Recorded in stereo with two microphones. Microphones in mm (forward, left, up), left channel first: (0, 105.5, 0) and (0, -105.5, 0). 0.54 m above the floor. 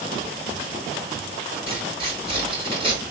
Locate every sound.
1.7 s tearing paper: 25° right (ahead or behind), 6.5 m